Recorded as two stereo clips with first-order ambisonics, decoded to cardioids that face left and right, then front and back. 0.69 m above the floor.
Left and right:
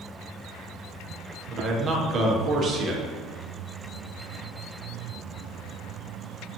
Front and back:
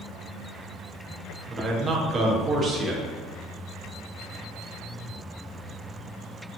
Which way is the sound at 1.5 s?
125° right.